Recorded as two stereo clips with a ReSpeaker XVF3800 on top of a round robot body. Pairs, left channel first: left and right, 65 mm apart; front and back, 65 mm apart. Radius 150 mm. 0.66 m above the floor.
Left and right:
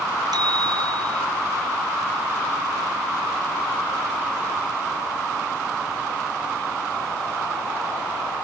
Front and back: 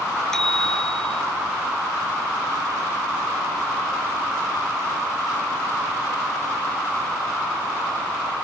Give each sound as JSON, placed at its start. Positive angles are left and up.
{"t": 0.3, "sound": "a bicycle bell", "azimuth_deg": -85}